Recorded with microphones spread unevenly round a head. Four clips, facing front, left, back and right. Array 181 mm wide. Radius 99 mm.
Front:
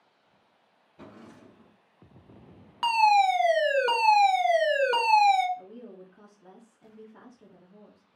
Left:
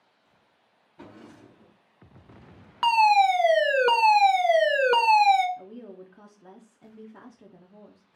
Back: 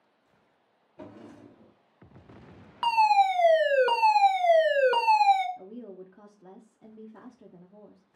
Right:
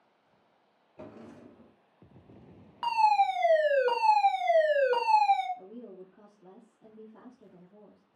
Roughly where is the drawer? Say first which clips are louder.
Even, back 3 dB; behind right.